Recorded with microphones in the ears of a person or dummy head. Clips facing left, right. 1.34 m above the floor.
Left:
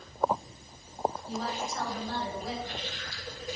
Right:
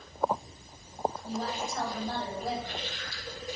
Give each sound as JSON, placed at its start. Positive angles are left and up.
{"t": 1.2, "sound": "a woman speaking", "side_deg": -40, "distance_m": 5.0}